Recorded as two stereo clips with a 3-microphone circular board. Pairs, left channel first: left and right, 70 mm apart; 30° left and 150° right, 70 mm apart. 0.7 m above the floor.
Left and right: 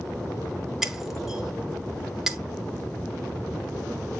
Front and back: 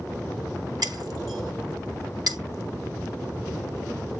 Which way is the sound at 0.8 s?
175° right.